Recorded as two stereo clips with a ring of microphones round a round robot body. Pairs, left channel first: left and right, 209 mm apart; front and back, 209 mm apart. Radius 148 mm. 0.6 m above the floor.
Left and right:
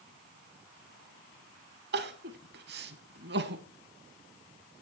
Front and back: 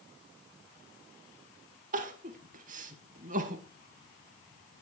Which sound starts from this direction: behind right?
Crying, at 1.9 s.